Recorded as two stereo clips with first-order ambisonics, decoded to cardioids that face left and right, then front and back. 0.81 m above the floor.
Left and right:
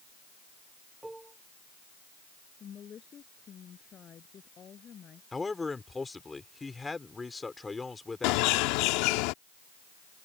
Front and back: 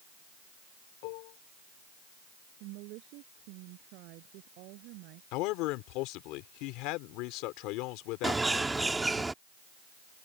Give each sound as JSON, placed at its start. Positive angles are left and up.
{"t": 1.0, "sound": "dishes clattering", "azimuth_deg": -5}
{"t": 2.6, "sound": "a woman speaking", "azimuth_deg": 155}
{"t": 5.3, "sound": "a man speaking", "azimuth_deg": 10}
{"t": 8.2, "sound": "a bird", "azimuth_deg": 100}